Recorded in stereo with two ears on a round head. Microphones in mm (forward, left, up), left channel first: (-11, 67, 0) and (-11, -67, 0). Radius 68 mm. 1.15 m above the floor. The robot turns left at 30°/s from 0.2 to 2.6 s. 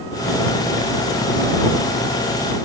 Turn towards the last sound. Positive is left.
No sound to turn to.